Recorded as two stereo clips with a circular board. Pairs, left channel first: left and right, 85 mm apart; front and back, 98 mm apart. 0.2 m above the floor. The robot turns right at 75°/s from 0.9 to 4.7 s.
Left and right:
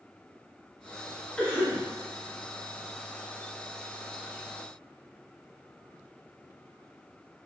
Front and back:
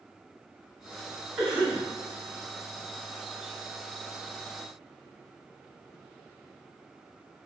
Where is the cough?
105° left, 1.0 m; by 1.9 s 140° left, 1.0 m.